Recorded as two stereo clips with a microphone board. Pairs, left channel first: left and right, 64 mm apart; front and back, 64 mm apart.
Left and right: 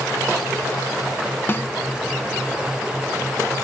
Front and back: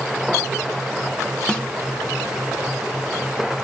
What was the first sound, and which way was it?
A snare drum, 65° left.